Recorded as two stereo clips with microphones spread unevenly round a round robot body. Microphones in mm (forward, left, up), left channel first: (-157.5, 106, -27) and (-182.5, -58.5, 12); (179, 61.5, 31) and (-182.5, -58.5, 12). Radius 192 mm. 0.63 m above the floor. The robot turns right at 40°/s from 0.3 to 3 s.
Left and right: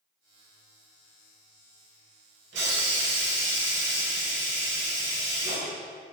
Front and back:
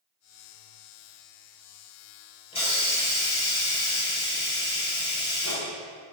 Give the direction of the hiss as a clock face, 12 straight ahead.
2 o'clock.